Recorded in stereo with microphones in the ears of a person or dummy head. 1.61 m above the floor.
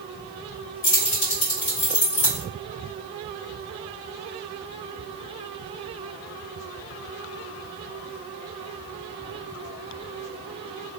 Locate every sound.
0.8 s keys jangling: 45° left (ahead or behind), 1.8 m